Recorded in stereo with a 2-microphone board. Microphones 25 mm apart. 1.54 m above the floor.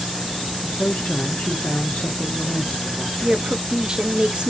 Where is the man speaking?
80° left, 1.6 m.